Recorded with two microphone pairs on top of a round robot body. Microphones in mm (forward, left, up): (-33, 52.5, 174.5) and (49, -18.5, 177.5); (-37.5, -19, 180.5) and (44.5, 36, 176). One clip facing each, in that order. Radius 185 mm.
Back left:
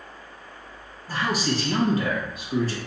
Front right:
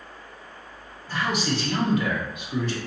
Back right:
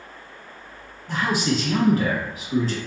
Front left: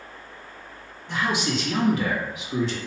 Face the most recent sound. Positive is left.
turn(degrees=175)